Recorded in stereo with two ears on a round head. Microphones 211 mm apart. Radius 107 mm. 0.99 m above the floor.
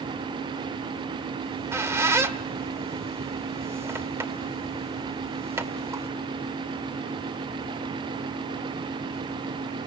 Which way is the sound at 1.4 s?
10° right (ahead or behind).